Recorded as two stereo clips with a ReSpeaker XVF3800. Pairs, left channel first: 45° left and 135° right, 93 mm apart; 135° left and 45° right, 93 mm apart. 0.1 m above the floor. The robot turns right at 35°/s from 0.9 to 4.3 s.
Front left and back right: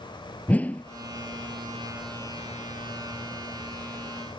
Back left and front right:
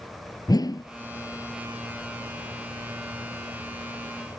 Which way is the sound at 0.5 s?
115° left.